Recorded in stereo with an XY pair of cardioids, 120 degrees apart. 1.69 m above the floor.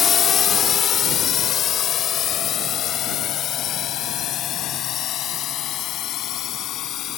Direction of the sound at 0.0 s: 45° left.